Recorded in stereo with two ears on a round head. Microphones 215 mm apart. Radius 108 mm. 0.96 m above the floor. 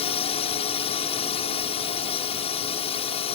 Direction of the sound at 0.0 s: 25° left (ahead or behind).